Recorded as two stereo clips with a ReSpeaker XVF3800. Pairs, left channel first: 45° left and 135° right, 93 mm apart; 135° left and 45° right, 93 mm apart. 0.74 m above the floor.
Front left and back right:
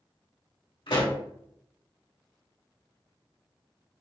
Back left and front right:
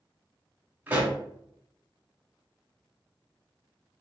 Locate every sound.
0.9 s a pop: 25° left, 1.5 m